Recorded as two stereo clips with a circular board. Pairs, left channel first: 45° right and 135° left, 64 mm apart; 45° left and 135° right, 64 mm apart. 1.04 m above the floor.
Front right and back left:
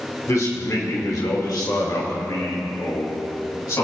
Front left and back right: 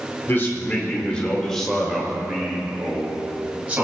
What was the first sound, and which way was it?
A man speaking, 5° right.